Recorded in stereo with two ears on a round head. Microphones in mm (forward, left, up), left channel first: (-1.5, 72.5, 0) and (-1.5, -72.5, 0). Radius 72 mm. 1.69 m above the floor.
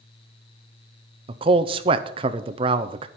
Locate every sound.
1.3 s a man speaking: 35° right (ahead or behind), 0.7 m